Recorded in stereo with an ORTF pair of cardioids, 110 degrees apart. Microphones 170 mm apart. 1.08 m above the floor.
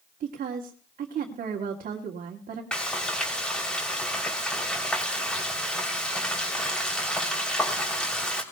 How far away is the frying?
About 3 m.